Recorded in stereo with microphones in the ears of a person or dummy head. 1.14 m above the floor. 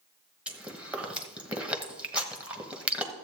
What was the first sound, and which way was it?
Chewing, centre (ahead or behind).